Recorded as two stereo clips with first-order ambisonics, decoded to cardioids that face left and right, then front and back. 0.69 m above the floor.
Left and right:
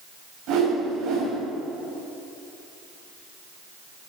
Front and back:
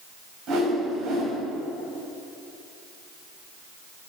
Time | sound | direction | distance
0.5 | a whoosh | 130° right | 4 m